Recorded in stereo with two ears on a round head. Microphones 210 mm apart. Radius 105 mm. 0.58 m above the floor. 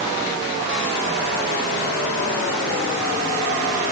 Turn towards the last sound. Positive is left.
No sound to turn to.